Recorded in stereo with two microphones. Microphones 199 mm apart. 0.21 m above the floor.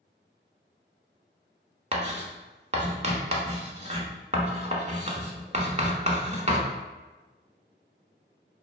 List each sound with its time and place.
1.9 s writing: 35° right (ahead or behind), 0.9 m